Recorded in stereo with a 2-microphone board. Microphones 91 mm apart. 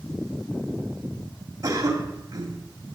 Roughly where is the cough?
Right.